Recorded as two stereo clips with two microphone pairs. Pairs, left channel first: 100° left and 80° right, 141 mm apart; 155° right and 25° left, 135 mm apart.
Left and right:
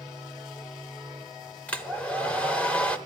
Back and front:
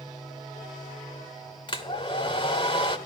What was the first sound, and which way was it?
A hair dryer, 175° left.